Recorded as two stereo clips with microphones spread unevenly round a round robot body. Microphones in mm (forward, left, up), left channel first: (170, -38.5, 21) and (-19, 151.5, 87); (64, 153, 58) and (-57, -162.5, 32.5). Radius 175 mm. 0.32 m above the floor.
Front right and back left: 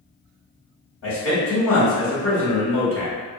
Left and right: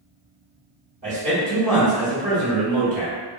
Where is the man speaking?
70° right, 1.8 m.